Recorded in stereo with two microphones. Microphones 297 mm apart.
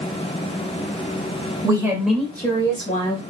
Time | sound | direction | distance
1.6 | a woman speaking | 15° right (ahead or behind) | 1.3 m